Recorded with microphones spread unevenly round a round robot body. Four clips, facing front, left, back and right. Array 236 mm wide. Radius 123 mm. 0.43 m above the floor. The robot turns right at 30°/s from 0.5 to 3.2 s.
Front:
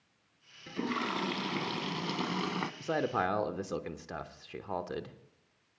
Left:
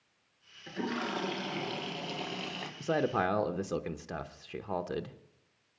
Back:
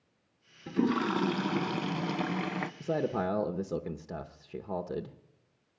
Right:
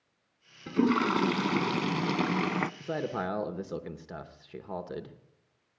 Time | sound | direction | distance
0.7 | a toilet flushing | 125° right | 0.6 m
2.8 | a man speaking | 140° left | 0.7 m